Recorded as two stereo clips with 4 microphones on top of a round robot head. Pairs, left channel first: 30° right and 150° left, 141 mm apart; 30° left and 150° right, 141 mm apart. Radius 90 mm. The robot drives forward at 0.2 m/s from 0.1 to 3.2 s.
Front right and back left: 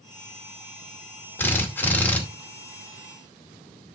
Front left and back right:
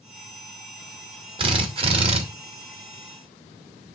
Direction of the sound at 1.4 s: 105° right.